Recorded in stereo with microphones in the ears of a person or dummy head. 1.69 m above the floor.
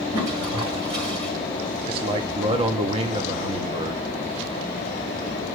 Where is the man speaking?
40° right (ahead or behind), 1.0 m.